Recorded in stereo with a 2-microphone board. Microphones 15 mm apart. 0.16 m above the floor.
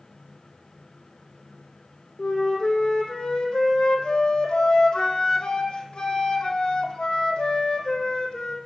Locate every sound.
2.2 s a flute: 80° left, 1.4 m